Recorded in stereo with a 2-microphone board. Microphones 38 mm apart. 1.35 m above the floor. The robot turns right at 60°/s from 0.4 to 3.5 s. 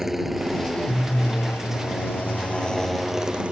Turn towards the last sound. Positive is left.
turn(degrees=-35)  # may be behind; listen again after turning